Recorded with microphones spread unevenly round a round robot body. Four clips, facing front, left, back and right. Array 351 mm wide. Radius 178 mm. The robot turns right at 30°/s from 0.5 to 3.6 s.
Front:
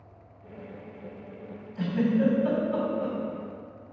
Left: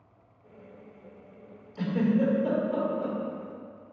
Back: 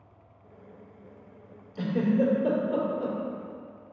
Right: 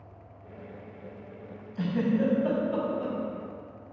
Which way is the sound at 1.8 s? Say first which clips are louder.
Left 1 dB, even; 140° left.